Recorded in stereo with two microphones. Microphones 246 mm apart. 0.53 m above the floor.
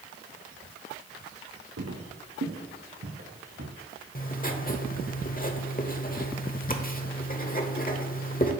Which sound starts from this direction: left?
Writing, at 4.2 s.